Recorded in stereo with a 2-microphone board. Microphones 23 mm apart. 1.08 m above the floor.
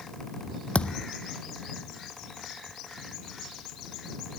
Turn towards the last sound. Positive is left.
turn(degrees=55)  # may be behind; listen again after turning